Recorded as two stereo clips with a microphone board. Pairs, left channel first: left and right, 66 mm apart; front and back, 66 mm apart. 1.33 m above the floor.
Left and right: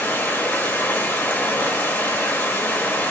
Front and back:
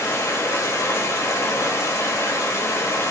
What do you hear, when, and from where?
0.0 s running water: 30° left, 1.0 m